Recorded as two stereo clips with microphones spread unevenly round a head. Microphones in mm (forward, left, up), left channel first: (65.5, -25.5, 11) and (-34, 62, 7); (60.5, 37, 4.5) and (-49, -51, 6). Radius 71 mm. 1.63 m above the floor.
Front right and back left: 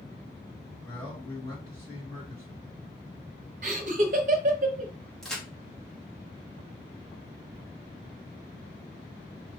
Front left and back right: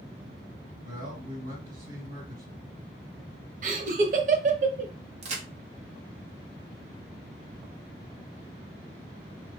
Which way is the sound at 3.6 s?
Straight behind.